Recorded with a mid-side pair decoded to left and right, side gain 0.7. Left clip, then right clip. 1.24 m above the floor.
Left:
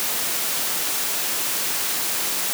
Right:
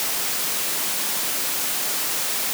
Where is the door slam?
I don't hear a door slam.